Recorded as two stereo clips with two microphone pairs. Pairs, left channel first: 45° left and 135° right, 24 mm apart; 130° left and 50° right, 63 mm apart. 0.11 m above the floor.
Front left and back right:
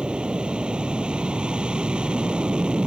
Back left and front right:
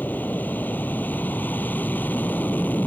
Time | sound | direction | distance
0.0 | an aircraft | 175° right | ?